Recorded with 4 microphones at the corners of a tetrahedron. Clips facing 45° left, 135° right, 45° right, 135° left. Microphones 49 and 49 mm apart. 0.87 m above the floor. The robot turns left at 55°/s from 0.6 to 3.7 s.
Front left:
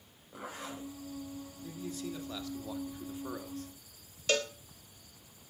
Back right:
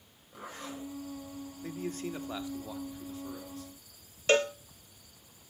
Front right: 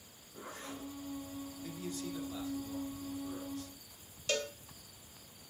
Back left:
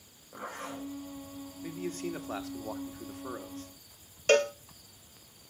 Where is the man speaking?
160° right, 1.8 m; by 3.7 s 85° left, 1.8 m.